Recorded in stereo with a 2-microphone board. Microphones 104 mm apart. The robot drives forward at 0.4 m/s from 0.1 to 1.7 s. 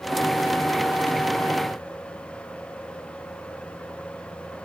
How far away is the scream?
I don't hear a scream.